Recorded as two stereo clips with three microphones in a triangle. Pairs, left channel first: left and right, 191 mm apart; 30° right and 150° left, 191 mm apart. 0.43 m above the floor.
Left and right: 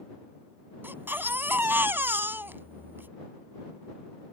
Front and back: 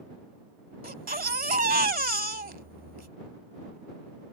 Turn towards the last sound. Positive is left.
turn(degrees=-170)